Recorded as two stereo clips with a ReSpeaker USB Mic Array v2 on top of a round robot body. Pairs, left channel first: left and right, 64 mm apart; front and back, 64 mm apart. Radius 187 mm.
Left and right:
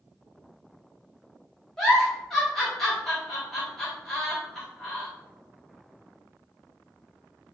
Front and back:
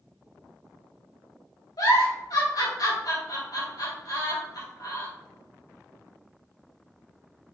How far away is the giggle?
About 4 m.